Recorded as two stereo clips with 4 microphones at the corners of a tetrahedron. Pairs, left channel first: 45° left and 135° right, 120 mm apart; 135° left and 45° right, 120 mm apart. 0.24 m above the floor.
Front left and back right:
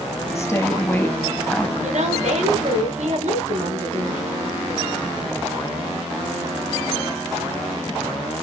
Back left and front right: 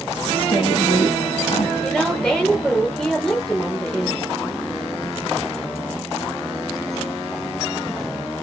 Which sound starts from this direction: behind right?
A woman speaking, at 1.8 s.